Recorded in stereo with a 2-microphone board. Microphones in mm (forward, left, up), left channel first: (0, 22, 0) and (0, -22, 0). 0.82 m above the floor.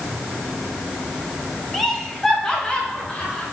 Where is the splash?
No splash in this recording.